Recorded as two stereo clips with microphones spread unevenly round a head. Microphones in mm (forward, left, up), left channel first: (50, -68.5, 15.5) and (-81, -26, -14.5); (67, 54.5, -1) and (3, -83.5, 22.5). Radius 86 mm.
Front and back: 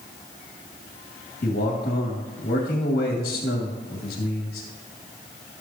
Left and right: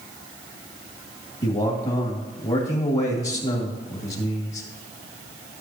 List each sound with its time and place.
1.4 s a man speaking: 15° left, 2.0 m